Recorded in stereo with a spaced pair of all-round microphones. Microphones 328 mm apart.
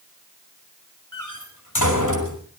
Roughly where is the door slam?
Left.